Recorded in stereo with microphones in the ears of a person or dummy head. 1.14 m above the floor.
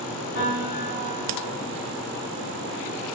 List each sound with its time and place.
0.3 s a piano: 35° right (ahead or behind), 1.4 m